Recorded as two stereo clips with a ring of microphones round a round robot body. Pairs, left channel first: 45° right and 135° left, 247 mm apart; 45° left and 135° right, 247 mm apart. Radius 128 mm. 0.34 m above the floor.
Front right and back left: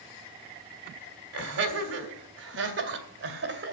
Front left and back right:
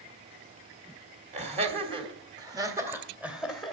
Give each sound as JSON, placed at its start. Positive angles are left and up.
{"t": 1.3, "sound": "laughter", "azimuth_deg": 165, "distance_m": 2.5}